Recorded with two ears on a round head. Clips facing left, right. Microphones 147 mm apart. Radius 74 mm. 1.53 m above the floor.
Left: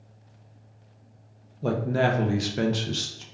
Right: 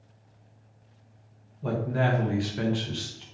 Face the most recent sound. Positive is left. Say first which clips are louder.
# left 3 dB
turn(degrees=45)  # may be behind; listen again after turning